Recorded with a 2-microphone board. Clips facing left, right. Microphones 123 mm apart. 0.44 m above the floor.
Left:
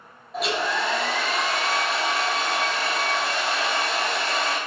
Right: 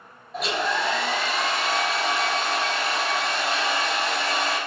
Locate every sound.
0.3 s a hair dryer: centre (ahead or behind), 0.7 m